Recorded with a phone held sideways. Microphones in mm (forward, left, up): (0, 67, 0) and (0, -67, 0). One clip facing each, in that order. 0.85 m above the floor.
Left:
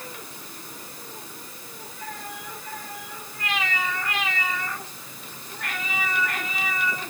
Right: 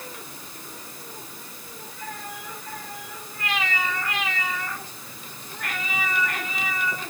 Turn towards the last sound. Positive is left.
No sound to turn to.